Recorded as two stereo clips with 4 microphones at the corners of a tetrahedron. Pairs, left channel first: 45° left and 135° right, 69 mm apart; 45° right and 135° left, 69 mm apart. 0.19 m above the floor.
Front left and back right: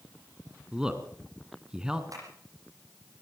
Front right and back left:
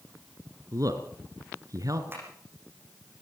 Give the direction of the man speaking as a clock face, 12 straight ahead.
7 o'clock.